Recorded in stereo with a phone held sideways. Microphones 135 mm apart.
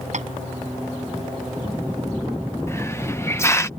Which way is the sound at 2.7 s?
20° left (ahead or behind).